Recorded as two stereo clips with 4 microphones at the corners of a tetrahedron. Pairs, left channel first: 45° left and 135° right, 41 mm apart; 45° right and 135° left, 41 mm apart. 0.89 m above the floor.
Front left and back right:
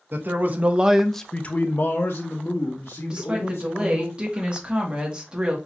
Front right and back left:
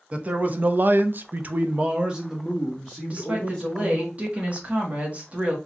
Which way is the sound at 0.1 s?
170° right.